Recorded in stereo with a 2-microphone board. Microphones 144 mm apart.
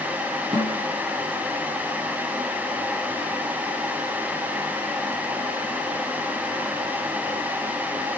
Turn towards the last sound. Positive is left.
turn(degrees=-45)  # may be behind; listen again after turning